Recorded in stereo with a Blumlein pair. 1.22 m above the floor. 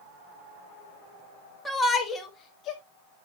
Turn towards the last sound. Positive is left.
turn(degrees=35)